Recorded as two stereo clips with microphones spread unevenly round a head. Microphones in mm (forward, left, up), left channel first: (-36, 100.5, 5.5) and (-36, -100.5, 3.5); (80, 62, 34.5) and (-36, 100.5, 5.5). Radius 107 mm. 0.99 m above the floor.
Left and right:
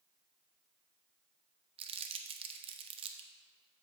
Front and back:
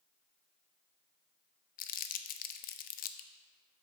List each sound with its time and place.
1.8 s crumpling: 25° right, 0.5 m